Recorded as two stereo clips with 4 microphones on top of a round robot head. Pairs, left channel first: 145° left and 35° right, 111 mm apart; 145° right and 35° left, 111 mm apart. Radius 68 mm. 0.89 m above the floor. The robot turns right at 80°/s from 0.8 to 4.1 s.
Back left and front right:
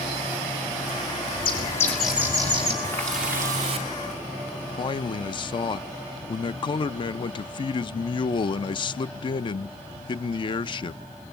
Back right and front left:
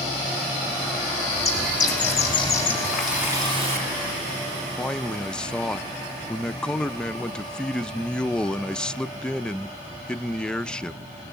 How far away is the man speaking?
About 0.6 m.